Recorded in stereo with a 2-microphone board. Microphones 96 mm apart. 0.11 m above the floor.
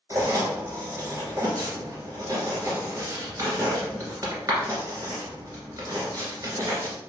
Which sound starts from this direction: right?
Writing, at 0.1 s.